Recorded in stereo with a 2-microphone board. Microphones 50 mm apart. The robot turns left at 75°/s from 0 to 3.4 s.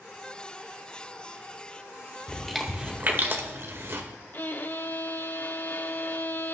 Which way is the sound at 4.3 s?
45° left (ahead or behind).